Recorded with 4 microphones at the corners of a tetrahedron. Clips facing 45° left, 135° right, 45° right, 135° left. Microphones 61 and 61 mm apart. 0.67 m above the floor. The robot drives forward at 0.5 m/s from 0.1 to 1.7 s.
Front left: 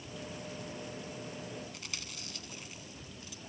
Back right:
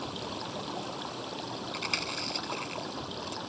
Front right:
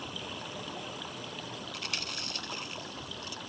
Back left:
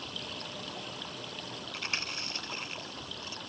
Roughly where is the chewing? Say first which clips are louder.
Back right 11 dB, back left 4 dB; behind.